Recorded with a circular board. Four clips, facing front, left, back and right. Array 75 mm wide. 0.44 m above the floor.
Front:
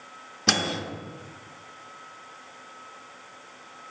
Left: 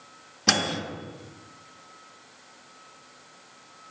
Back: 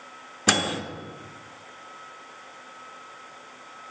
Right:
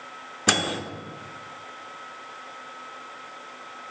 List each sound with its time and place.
0.5 s a microwave: 135° right, 0.5 m